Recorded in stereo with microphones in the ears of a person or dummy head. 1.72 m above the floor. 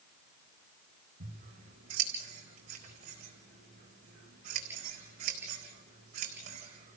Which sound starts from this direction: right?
Scissors, at 1.2 s.